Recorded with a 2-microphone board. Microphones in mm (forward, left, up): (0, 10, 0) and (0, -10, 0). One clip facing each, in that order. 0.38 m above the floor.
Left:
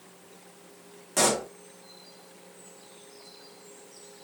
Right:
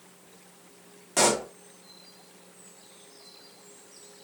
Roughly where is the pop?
Centre.